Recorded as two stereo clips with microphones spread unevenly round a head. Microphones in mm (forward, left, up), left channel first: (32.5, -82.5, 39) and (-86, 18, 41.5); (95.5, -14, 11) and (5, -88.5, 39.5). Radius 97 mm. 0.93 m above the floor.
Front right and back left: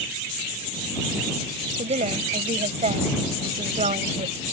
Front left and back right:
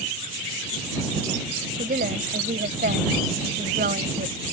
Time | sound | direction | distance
1.8 | a woman speaking | 175° right | ?